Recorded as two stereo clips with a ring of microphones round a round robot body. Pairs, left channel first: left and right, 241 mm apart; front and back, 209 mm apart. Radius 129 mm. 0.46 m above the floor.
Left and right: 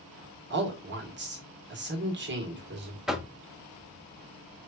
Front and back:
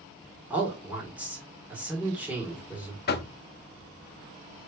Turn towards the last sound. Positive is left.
turn(degrees=0)